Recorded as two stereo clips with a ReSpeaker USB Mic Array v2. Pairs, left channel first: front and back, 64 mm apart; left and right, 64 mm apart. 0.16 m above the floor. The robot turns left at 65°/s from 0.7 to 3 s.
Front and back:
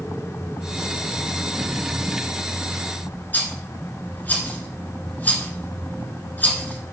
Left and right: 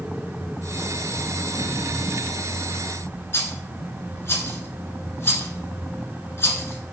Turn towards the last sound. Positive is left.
turn(degrees=55)